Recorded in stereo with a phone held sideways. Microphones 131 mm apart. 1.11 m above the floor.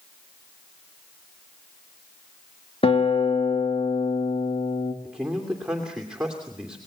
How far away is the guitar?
About 2.5 m.